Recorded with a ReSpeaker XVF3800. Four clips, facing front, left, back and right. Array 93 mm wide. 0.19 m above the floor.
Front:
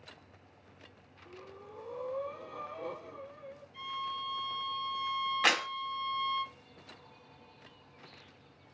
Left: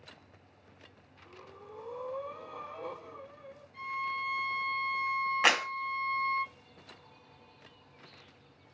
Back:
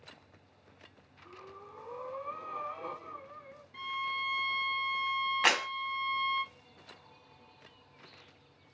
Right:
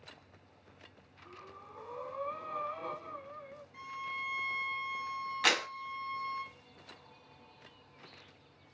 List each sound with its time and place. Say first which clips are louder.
1.2 s breathing: left 1 dB, even; 135° right, 2.5 m
3.7 s a violin: left 6 dB, back 3 dB; 165° right, 0.8 m
5.4 s a clap: left 3 dB, even; 115° left, 1.5 m